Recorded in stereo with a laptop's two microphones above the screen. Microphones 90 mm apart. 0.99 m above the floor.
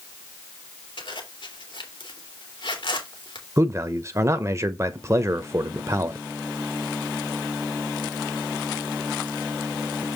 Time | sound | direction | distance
1.0 | a zipper | 70° left (ahead or behind) | 2.5 m
3.6 | a man speaking | 35° right (ahead or behind) | 0.7 m